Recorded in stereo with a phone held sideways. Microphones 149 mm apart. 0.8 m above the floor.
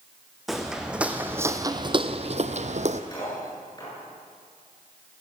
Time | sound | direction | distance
0.5 | footsteps | centre (ahead or behind) | 2 m
3.1 | cutlery clinking | 30° left (ahead or behind) | 8.5 m